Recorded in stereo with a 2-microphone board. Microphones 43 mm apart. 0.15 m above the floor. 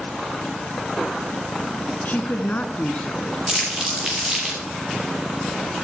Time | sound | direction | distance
2.0 | a woman speaking | 45° left (ahead or behind) | 1.4 m
3.5 | crumpling | 20° right (ahead or behind) | 6 m